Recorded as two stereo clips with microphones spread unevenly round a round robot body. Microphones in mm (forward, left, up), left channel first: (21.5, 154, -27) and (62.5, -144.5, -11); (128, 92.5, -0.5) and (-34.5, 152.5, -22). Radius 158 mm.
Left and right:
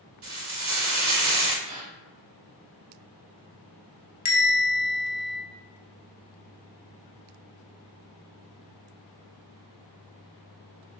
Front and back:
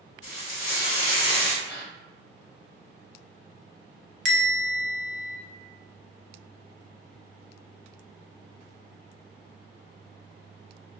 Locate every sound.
0.2 s frying: 50° right, 1.1 m
1.6 s a gasp: 110° right, 1.1 m
4.2 s a bell: 160° left, 0.6 m